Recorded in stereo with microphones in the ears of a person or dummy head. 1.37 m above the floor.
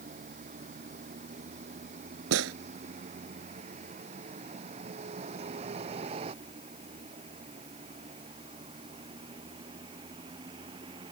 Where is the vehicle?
45° right (ahead or behind); by 11.1 s 30° right (ahead or behind).